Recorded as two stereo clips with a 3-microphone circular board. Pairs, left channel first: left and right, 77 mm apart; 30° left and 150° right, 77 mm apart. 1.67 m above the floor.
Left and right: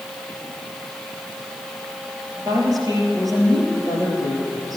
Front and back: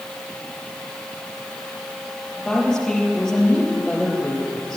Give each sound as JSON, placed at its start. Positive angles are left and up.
{"t": 2.4, "sound": "a woman speaking", "azimuth_deg": -55, "distance_m": 4.0}